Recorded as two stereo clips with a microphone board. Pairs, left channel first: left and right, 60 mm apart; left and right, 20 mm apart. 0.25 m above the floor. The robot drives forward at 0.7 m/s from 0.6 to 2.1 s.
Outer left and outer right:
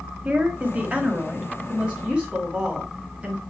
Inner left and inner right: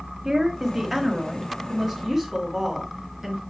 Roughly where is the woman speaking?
Right.